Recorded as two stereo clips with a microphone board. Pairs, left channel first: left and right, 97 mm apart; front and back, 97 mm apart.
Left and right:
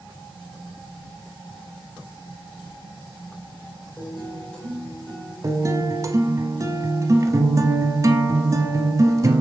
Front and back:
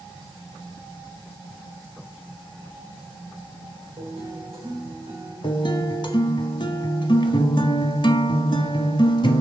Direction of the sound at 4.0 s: 170° left.